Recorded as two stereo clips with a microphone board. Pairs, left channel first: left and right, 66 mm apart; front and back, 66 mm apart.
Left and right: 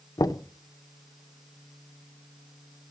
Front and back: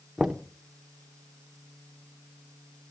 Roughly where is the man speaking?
No man speaking in this recording.